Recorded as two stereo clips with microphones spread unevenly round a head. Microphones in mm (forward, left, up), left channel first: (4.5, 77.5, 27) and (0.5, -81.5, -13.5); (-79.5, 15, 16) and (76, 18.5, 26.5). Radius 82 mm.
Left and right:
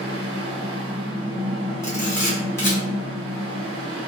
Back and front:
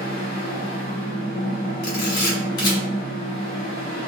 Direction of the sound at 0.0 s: 145° right.